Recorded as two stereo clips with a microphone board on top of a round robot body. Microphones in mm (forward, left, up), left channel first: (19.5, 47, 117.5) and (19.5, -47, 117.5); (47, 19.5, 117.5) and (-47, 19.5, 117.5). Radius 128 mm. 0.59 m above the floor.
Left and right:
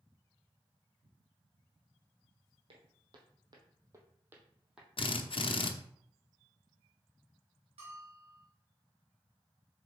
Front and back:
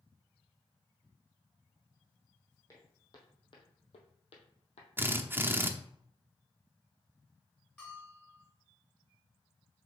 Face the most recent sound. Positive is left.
turn(degrees=-80)